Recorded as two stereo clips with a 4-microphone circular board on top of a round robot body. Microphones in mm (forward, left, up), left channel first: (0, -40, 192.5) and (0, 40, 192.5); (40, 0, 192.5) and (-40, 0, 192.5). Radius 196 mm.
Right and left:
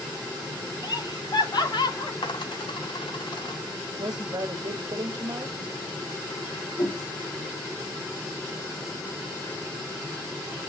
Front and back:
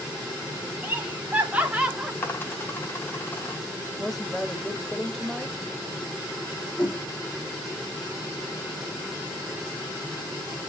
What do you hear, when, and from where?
0.8 s laughter: 115° right, 2.5 m; by 2.1 s 105° right, 2 m
2.2 s a dropped coin: 65° right, 1.8 m
4.0 s a woman speaking: 85° left, 1.7 m
6.8 s a whoosh: 65° right, 4 m